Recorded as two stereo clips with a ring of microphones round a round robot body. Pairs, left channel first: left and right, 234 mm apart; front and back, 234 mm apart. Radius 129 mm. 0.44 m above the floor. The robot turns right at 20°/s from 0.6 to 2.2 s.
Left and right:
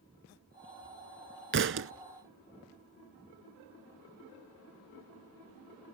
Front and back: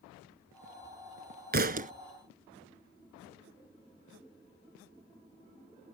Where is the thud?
130° right; by 1.9 s 120° right.